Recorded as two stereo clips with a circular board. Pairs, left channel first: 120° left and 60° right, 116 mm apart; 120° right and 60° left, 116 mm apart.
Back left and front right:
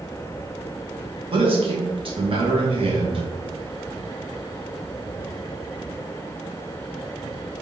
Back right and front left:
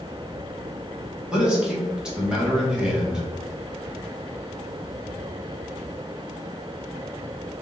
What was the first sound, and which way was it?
A man speaking, 25° right.